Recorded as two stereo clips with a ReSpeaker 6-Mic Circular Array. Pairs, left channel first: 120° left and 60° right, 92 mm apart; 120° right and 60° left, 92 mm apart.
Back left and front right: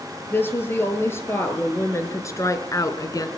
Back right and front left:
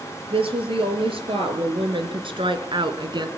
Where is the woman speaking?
55° left, 4.5 m; by 3.3 s 80° left, 2 m.